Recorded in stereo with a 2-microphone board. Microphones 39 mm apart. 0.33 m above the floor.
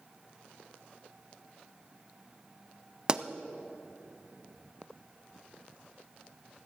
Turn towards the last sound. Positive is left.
turn(degrees=-20)  # may be behind; listen again after turning